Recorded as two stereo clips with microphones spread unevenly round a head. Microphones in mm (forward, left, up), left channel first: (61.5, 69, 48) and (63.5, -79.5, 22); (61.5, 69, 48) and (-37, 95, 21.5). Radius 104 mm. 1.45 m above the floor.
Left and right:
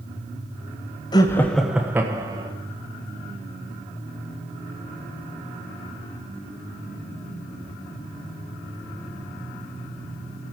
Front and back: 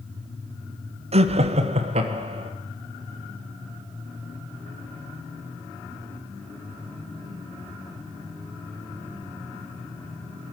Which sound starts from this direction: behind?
Laughter, at 1.1 s.